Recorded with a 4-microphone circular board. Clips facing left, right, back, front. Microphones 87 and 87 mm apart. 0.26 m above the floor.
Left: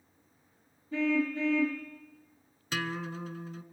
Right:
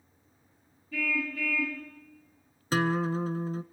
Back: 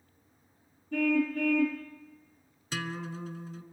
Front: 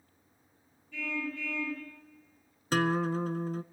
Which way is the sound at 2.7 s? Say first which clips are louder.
Right 8 dB, front 9 dB; 40° right.